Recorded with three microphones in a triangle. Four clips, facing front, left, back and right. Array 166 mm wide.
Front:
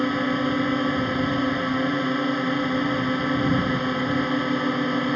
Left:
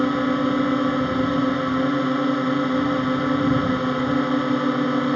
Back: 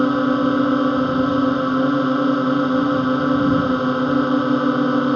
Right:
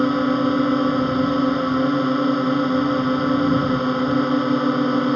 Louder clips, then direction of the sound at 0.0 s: Right 2 dB, back 6 dB; 155° right.